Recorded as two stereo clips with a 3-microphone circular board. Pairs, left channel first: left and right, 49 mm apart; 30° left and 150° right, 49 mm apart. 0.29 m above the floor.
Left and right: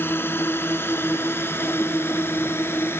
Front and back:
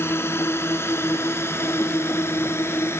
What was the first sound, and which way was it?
A drone, 55° left.